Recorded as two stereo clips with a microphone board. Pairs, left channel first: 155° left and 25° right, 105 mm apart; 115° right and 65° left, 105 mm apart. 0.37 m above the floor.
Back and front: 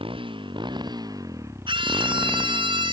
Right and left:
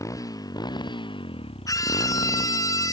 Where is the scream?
55° right.